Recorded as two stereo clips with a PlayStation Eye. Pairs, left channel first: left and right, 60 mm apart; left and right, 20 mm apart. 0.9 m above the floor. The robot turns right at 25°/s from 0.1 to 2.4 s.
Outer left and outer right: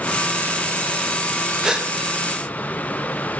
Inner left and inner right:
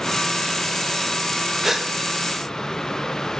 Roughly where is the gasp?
Centre.